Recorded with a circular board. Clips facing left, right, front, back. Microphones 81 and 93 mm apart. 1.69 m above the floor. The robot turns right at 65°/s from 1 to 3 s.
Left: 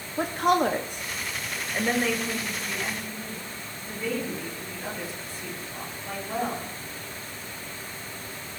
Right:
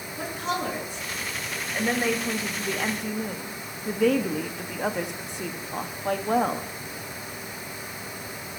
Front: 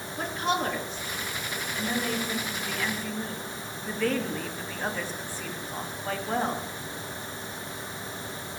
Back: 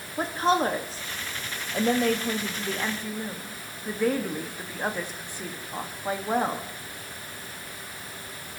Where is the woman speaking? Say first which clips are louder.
Left 7 dB, back 5 dB; 125° left, 1.3 m; by 6.7 s 105° right, 1.3 m.